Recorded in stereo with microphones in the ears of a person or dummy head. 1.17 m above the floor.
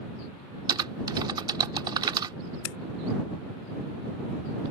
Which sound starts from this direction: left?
Scissors, at 2.6 s.